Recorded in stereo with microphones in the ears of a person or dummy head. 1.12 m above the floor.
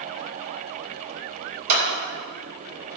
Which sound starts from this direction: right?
A clap, at 1.7 s.